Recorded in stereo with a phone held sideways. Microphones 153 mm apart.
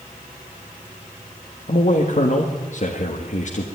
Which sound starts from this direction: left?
A man speaking, at 1.7 s.